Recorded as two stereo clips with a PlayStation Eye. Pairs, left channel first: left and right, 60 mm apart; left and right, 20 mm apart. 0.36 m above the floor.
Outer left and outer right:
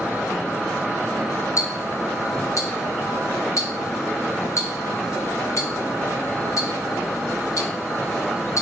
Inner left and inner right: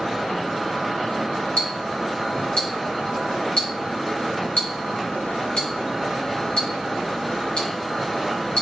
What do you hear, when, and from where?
1.6 s ticking: 65° left (ahead or behind), 0.8 m